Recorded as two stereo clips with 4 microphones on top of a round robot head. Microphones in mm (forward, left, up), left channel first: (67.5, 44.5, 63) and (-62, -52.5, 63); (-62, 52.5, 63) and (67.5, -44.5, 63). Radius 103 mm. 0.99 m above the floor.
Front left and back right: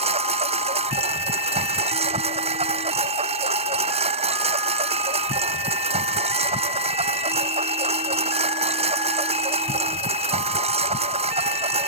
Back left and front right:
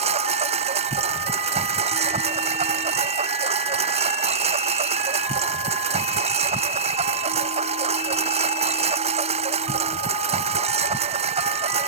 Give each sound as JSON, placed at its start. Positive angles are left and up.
{"t": 0.0, "sound": "a lawn mower", "azimuth_deg": -90}